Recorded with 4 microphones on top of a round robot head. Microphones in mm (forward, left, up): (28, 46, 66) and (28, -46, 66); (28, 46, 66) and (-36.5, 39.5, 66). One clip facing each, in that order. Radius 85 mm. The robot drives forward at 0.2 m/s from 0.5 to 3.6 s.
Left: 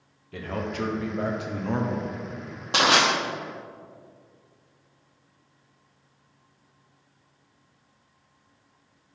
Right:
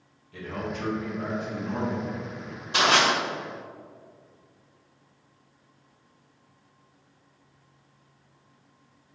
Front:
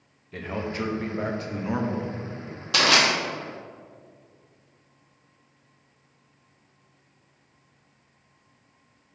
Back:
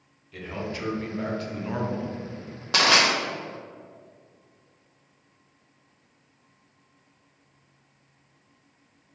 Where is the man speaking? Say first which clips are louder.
Left 3 dB, front 3 dB; 55° left, 0.7 m; by 2.1 s 85° left, 0.6 m.